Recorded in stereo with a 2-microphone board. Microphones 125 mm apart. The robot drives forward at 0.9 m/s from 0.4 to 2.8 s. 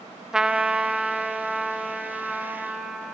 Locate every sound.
0.3 s a trumpet: 5° right (ahead or behind), 0.7 m; by 3.1 s centre (ahead or behind), 2.5 m